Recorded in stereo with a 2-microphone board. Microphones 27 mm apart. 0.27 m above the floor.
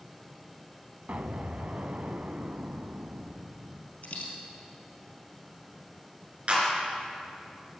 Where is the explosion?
55° right (ahead or behind), 0.6 m.